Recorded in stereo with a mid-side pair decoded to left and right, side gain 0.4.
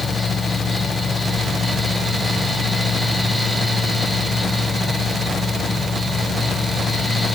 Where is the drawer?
I don't hear a drawer.